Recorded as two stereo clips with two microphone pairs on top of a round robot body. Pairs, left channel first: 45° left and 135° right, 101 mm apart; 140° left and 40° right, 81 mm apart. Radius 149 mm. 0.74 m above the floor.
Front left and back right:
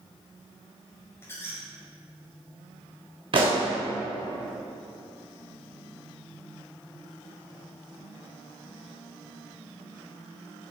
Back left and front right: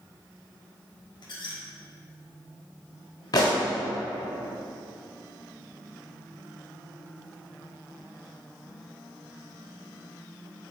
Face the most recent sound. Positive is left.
turn(degrees=-170)